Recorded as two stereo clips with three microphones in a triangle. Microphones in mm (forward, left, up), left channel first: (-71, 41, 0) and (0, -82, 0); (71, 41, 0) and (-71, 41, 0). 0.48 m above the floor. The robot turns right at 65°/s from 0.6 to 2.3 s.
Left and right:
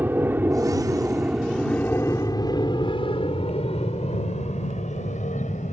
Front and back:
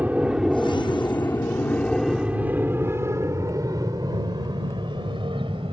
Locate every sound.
0.0 s an aircraft: 115° right; by 5.7 s 135° left